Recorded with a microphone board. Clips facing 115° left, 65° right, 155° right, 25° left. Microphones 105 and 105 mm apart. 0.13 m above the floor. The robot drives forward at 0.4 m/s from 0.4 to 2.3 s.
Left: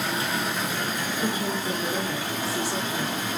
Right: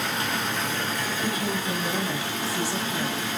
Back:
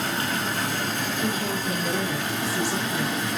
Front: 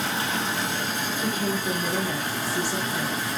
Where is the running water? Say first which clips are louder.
Left 1 dB, even; 170° right, 1.0 m; by 3.4 s 175° right, 1.6 m.